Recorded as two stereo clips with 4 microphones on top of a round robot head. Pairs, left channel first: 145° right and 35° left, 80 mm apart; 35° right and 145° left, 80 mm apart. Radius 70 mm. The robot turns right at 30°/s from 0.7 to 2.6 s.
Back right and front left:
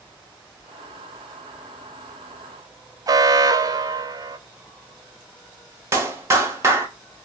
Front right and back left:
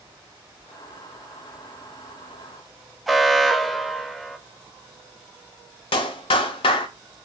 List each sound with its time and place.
3.1 s an alarm: 55° left, 0.5 m
5.9 s a clap: 25° right, 0.8 m